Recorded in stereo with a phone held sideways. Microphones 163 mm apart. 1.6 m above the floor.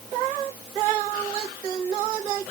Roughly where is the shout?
No shout in this recording.